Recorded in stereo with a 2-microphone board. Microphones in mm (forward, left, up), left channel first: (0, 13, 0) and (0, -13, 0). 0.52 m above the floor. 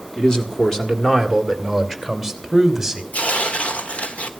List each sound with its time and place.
0.2 s a man speaking: 25° left (ahead or behind), 2.0 m; by 3.0 s 5° right (ahead or behind), 2.5 m
3.1 s tearing paper: 55° left (ahead or behind), 1.3 m